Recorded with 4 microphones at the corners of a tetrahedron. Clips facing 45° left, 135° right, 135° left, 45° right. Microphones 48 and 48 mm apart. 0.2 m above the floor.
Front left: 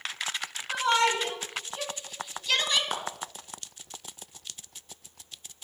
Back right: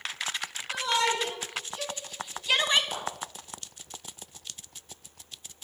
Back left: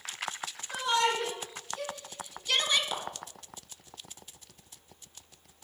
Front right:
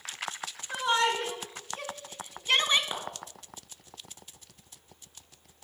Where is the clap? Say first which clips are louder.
Front left 3 dB, back left 1 dB; 15° left, 2.5 m.